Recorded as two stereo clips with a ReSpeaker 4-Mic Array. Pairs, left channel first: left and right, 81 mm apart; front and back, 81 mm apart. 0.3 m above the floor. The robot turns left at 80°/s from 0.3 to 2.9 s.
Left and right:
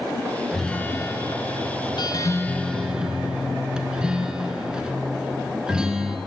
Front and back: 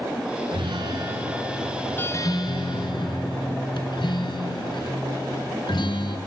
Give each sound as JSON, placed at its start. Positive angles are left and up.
{"t": 0.5, "sound": "a guitar", "azimuth_deg": 180, "distance_m": 1.1}